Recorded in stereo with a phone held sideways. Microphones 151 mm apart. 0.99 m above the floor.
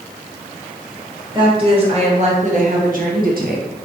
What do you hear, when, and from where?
1.3 s a woman speaking: 30° right (ahead or behind), 1.5 m; by 3.7 s 65° right (ahead or behind), 1.0 m